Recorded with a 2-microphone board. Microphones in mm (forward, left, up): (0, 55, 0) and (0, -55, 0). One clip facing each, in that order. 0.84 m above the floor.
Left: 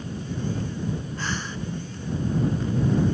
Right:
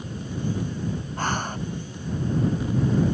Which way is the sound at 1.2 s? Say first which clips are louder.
Right 4 dB; 50° right (ahead or behind).